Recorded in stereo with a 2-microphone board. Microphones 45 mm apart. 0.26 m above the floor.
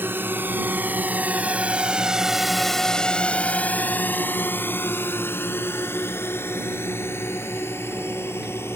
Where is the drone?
50° right (ahead or behind); by 8.8 s 65° left (ahead or behind).